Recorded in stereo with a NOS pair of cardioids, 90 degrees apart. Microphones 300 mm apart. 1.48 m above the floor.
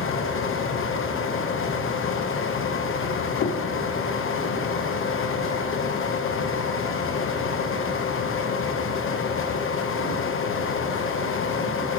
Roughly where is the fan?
Ahead left.